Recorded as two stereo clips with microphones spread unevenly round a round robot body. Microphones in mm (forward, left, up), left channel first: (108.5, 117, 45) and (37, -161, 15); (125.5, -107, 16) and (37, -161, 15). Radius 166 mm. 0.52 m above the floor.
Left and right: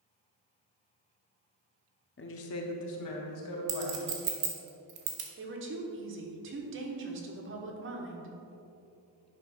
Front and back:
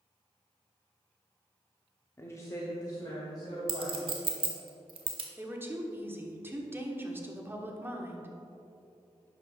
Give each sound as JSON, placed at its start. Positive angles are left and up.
{"t": 2.2, "sound": "a woman speaking", "azimuth_deg": 75, "distance_m": 0.8}
{"t": 3.7, "sound": "a clink", "azimuth_deg": -140, "distance_m": 1.2}
{"t": 5.4, "sound": "a woman speaking", "azimuth_deg": -85, "distance_m": 1.4}